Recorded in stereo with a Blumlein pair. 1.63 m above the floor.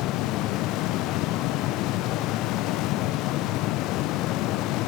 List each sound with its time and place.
0.0 s a fan: 40° left, 0.9 m